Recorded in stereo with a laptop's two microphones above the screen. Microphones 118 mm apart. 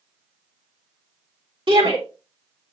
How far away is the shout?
About 2.5 m.